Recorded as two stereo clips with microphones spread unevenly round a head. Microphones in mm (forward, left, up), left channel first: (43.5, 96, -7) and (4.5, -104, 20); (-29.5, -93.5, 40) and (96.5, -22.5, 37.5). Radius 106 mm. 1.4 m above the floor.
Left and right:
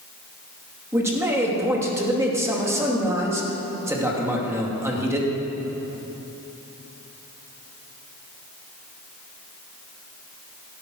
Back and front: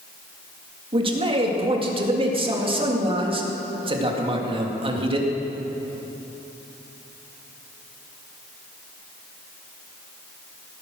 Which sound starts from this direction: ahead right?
A man speaking, at 0.9 s.